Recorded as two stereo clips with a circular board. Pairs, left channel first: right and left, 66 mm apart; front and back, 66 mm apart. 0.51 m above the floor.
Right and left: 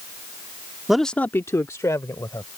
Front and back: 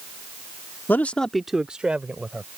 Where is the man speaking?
15° left; by 2.5 s 115° right.